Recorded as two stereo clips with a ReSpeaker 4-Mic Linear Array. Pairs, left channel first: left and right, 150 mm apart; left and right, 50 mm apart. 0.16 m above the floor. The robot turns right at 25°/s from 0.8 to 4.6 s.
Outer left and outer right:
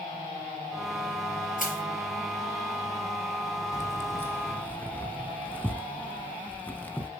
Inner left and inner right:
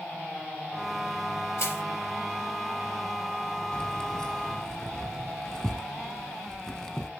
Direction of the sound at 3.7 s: 20° left (ahead or behind).